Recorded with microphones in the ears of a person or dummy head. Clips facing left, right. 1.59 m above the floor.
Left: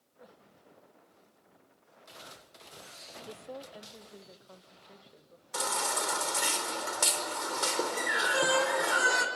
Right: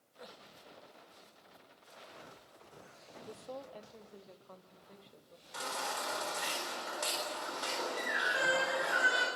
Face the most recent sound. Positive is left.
turn(degrees=65)  # may be behind; listen again after turning